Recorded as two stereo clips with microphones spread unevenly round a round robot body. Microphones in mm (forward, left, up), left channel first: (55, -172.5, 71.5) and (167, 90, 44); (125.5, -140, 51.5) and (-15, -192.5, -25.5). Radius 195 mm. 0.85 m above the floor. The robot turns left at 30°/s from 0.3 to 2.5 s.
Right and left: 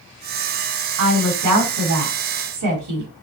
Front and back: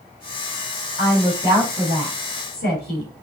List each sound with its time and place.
1.0 s a woman speaking: 115° left, 1.9 m; by 3.1 s 70° left, 1.9 m